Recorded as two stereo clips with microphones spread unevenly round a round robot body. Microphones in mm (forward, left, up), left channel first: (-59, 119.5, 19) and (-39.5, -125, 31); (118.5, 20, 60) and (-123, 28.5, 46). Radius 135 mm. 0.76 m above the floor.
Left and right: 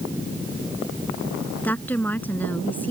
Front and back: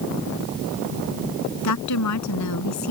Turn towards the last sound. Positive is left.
turn(degrees=10)